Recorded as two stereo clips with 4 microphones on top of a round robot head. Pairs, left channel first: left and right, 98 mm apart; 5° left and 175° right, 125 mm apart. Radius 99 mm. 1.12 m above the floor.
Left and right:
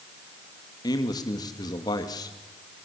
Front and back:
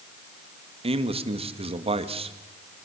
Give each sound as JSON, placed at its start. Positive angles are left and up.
{"t": 0.8, "sound": "a man speaking", "azimuth_deg": 145, "distance_m": 2.0}